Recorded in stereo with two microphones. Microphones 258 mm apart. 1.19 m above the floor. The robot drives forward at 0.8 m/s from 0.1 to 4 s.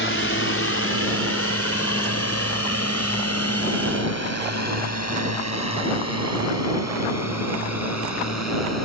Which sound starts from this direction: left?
A drone, at 0.0 s.